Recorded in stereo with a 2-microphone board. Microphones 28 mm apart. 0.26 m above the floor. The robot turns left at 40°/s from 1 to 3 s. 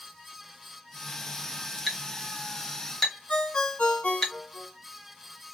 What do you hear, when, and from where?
1.9 s a clink: 5° right (ahead or behind), 0.9 m; by 4.3 s 15° left (ahead or behind), 0.9 m
3.3 s a ringtone: 55° left (ahead or behind), 1.3 m